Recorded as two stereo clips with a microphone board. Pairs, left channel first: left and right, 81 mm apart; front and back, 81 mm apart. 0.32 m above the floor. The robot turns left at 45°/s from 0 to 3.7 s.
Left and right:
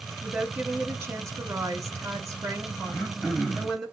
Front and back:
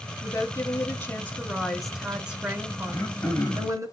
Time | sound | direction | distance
0.2 | a woman speaking | 20° right | 1.6 m
2.9 | throat clearing | 20° left | 1.6 m